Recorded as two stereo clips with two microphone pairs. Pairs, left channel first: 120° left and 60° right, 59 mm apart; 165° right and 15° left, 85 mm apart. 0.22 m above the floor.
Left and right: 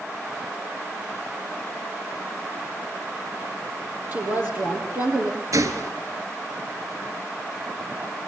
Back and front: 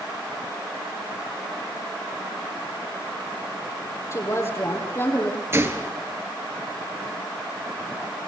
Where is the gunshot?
45° right, 1.6 m.